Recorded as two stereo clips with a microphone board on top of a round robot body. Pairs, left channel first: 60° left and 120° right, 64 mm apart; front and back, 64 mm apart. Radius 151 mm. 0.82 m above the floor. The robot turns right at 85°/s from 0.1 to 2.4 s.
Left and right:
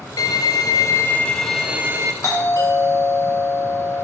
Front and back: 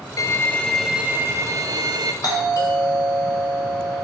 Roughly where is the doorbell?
Ahead.